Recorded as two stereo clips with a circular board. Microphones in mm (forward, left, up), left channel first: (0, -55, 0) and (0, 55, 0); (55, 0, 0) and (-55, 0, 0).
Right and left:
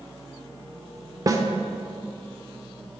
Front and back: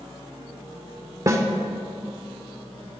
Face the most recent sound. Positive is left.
turn(degrees=130)